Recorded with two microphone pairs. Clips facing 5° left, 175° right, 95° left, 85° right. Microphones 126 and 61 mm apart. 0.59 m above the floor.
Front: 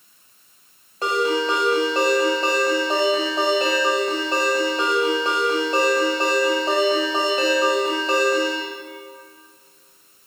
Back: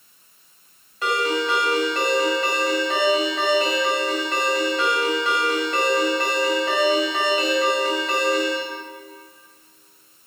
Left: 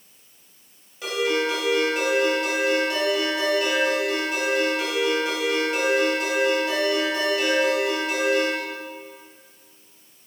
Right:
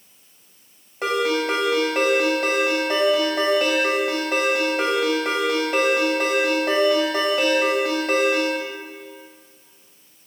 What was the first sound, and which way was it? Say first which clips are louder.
A ringtone: front 2 dB, right 2 dB; 45° right.